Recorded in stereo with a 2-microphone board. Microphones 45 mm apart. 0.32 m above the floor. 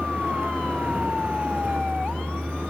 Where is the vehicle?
35° right (ahead or behind).